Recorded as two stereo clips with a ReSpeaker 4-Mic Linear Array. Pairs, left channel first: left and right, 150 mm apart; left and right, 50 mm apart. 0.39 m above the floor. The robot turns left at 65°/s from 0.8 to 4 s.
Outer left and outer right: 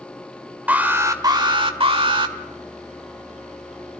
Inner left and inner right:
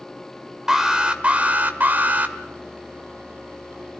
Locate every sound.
0.7 s an alarm: 20° right, 1.6 m; by 2.4 s 120° right, 1.6 m